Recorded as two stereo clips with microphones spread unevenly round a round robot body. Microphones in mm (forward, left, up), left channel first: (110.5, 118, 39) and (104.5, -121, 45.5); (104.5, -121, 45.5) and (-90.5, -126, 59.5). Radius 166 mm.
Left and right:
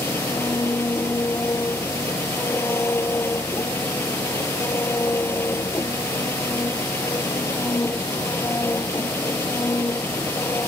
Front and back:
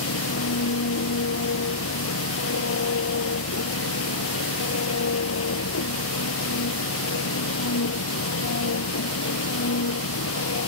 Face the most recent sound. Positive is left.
turn(degrees=10)